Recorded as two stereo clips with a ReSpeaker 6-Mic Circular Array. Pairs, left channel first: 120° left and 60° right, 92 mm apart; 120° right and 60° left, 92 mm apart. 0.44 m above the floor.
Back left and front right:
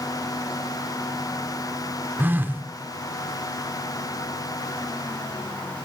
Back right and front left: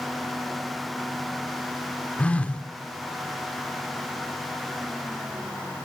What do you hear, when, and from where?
2.2 s a phone buzzing: 70° right, 0.7 m